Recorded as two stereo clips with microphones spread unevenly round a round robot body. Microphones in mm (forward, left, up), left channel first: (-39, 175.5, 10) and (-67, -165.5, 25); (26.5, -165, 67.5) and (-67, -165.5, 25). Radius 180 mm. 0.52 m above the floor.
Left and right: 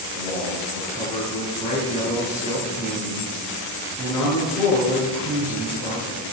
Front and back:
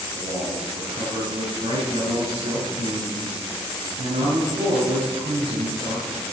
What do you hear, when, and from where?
0.1 s a man speaking: 165° left, 5 m